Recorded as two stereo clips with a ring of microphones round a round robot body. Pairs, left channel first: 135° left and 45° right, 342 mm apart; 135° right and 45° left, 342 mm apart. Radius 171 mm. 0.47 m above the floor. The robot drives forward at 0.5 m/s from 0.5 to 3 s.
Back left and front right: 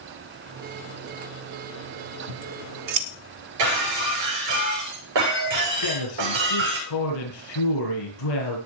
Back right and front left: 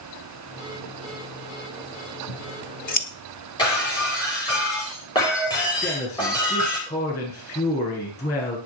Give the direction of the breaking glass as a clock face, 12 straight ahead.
2 o'clock.